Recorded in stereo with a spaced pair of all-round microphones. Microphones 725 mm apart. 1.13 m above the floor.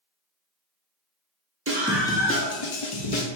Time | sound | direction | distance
1.7 | a scream | 20° right (ahead or behind) | 0.5 m